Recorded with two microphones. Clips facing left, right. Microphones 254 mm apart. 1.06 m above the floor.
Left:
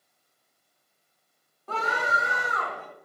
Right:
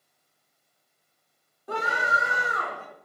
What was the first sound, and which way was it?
A scream, 15° right (ahead or behind).